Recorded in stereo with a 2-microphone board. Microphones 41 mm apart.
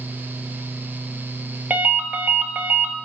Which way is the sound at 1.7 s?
50° right (ahead or behind).